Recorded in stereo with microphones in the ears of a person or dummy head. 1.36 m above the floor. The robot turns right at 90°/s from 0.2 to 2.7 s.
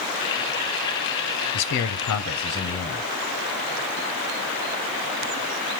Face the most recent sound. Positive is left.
turn(degrees=160)